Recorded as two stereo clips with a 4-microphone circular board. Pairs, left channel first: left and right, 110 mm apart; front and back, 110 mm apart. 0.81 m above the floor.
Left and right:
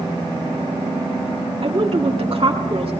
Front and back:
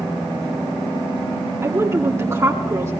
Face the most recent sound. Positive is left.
turn(degrees=-120)